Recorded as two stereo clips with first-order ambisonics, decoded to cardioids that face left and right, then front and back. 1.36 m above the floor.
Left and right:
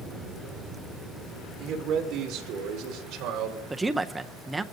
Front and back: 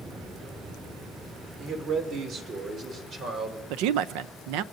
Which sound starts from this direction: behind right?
A man speaking, at 1.6 s.